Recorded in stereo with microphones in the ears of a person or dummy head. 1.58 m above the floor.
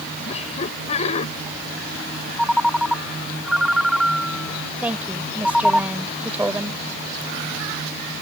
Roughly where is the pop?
No pop in this recording.